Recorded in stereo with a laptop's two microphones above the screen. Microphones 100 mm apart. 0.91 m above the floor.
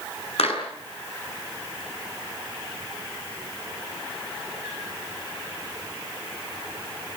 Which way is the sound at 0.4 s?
80° left.